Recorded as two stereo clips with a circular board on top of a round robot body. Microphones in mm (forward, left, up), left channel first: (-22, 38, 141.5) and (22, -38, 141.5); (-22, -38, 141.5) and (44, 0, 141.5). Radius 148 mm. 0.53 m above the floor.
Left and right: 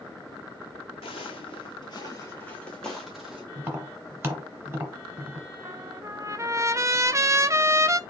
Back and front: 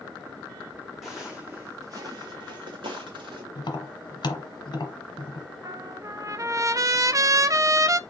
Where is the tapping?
125° right, 1.5 m.